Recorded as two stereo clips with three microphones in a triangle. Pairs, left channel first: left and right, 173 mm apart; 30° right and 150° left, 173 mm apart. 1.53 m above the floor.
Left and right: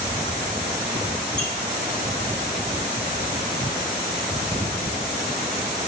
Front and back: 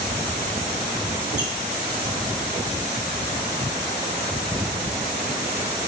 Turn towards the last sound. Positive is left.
turn(degrees=15)